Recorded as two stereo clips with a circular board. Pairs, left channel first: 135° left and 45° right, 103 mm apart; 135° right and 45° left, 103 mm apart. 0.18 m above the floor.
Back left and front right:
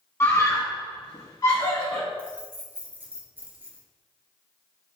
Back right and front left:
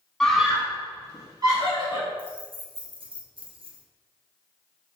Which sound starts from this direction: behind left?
A scream, at 0.2 s.